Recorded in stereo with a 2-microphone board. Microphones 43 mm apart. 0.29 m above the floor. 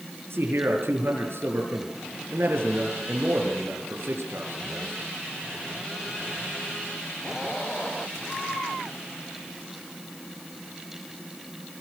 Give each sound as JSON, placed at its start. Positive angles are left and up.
{"t": 0.3, "sound": "a man speaking", "side_deg": -70, "distance_m": 6.0}